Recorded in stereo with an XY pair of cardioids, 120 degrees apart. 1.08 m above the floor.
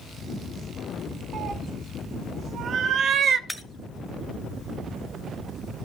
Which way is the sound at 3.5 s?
5° left.